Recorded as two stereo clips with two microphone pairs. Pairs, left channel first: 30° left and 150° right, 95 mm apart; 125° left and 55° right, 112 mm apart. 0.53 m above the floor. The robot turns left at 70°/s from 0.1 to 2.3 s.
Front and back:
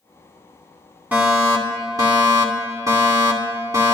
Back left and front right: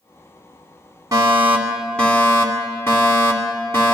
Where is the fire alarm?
90° right, 2 m; by 4.0 s 175° right, 2 m.